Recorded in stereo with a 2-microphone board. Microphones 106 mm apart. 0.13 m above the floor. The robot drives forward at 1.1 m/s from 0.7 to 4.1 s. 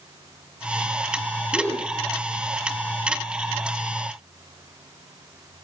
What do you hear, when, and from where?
1.5 s a gasp: 15° left (ahead or behind), 5 m